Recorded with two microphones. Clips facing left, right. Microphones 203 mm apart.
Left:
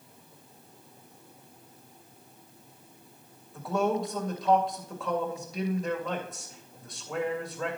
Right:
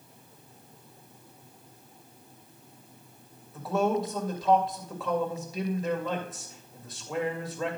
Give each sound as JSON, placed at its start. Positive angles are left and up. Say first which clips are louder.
{"t": 3.5, "sound": "a man speaking", "louder": "right 1 dB", "side_deg": 0, "distance_m": 2.5}